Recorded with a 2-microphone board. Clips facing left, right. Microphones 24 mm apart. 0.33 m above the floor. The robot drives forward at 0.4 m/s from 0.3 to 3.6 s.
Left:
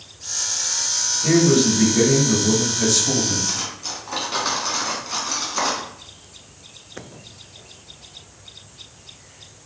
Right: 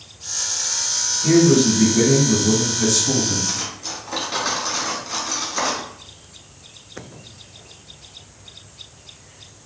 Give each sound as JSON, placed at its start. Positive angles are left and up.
{"t": 1.2, "sound": "a man speaking", "side_deg": 25, "distance_m": 1.5}
{"t": 3.5, "sound": "cutlery clinking", "side_deg": 10, "distance_m": 1.6}